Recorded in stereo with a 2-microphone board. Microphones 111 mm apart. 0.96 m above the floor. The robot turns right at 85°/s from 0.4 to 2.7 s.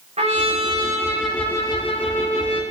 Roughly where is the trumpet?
Right.